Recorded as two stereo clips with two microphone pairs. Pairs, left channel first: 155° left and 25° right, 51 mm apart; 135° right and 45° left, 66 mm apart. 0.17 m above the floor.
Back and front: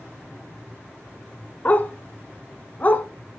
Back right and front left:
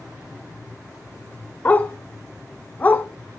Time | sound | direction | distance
1.6 | a dog barking | 175° right | 0.6 m